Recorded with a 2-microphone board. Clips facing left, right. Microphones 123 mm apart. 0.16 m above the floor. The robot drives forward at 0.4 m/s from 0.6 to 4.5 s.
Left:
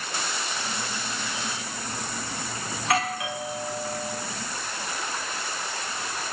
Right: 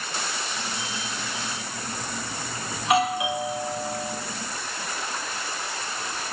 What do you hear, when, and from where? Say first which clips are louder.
2.8 s a doorbell: right 5 dB; 20° right (ahead or behind), 1.7 m